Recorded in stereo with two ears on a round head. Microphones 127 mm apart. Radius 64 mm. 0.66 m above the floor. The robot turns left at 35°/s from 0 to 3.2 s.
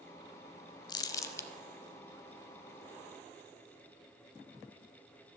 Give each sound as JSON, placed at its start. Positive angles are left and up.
{"t": 0.9, "sound": "crumpling", "side_deg": 30, "distance_m": 0.6}